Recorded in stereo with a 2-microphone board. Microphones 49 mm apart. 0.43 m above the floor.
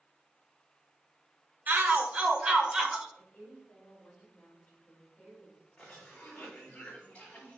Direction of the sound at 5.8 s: 25° left (ahead or behind).